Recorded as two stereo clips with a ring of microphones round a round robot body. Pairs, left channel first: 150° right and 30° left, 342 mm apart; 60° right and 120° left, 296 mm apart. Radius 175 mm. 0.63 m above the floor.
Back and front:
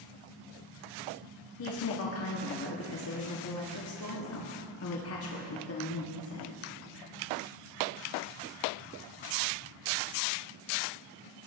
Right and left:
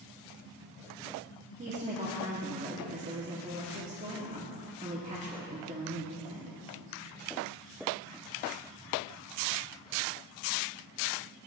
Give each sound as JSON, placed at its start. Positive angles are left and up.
{"t": 1.6, "sound": "a woman speaking", "azimuth_deg": 180, "distance_m": 1.1}